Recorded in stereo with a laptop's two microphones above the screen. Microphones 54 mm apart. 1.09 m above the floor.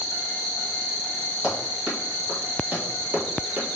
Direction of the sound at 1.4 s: 20° right (ahead or behind).